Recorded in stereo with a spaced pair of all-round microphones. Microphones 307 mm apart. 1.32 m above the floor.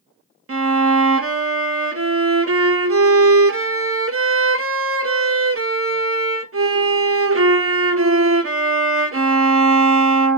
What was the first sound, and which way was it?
A violin, 45° right (ahead or behind).